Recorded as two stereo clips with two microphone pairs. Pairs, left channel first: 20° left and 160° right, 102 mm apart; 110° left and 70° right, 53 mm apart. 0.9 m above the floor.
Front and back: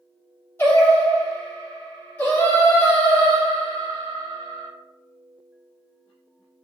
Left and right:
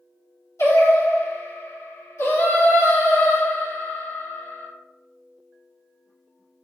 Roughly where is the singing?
Left.